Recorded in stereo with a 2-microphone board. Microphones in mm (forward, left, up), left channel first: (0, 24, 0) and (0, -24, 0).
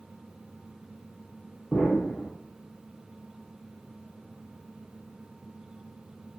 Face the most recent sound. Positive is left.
turn(degrees=30)  # may be behind; listen again after turning